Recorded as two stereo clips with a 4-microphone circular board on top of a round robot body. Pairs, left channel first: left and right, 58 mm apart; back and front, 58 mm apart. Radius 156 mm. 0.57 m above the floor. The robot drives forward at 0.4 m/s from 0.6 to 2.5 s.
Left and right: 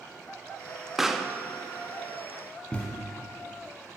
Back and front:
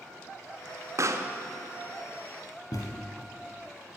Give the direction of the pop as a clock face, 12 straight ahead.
12 o'clock.